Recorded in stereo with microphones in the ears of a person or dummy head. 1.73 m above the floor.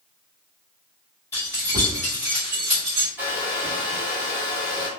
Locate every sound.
1.3 s keys jangling: 10° left (ahead or behind), 1.4 m; by 3.1 s 20° right (ahead or behind), 0.9 m
3.2 s a hair dryer: 15° left (ahead or behind), 0.7 m